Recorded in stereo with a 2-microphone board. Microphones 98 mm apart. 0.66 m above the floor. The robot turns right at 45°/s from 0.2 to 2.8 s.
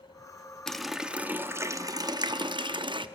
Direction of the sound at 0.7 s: 170° left.